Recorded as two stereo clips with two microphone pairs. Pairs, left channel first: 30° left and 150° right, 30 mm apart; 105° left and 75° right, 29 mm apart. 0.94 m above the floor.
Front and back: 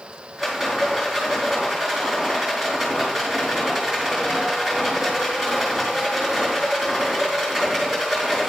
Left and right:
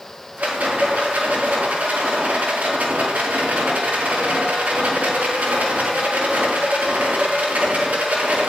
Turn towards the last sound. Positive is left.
turn(degrees=-70)